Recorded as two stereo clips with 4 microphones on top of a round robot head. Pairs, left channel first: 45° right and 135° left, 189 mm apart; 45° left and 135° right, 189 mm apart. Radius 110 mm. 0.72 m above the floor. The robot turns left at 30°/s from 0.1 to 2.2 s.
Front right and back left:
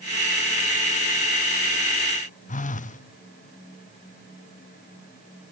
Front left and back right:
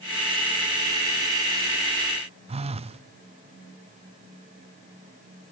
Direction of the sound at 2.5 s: 85° right.